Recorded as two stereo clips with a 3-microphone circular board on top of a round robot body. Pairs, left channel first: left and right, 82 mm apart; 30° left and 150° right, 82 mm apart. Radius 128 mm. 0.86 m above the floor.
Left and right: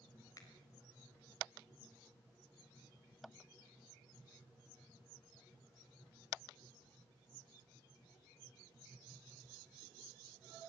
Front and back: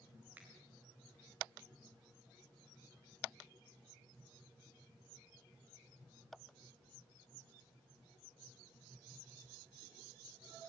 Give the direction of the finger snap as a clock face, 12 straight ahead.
7 o'clock.